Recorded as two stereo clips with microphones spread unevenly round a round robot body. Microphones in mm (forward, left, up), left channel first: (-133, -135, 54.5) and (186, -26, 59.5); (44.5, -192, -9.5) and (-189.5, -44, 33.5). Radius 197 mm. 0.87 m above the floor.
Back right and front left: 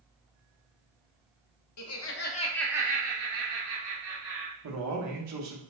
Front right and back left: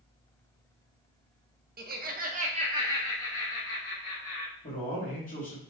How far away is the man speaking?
About 1.2 m.